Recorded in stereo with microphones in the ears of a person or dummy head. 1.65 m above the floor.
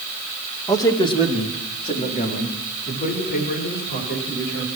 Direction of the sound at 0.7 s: 15° left (ahead or behind).